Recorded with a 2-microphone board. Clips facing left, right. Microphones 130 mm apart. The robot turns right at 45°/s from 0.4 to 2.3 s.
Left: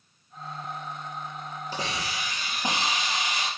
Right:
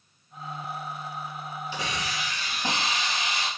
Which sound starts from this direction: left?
A hiss, at 1.7 s.